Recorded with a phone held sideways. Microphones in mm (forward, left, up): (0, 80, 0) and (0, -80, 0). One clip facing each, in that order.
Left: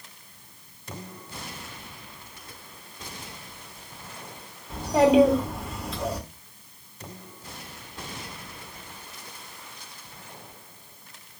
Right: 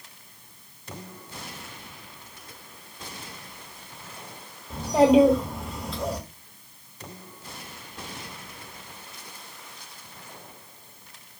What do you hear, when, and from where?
4.7 s a child speaking: centre (ahead or behind), 1.4 m